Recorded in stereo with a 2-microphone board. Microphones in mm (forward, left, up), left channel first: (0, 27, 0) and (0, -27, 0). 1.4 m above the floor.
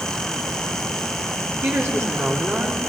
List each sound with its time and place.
1.6 s a woman speaking: 45° right (ahead or behind), 3 m